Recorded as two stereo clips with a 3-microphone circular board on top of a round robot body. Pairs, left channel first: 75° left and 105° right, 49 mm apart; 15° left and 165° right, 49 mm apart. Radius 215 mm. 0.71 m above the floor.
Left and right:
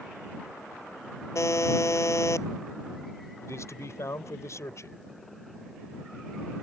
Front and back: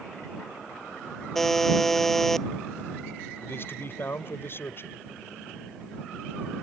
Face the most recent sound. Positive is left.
turn(degrees=55)